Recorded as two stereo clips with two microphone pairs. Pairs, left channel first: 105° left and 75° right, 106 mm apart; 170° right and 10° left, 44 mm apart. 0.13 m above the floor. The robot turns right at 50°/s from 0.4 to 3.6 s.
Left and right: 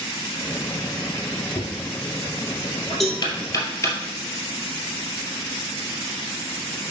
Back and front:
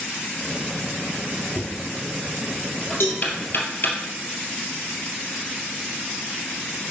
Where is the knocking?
60° left, 2.5 m; by 4.0 s 165° left, 2.5 m.